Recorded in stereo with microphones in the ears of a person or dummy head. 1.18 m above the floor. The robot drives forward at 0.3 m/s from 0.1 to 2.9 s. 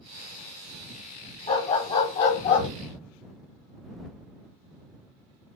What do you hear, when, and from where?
1.5 s a dog barking: 35° left (ahead or behind), 1.5 m; by 2.7 s 40° left (ahead or behind), 1.3 m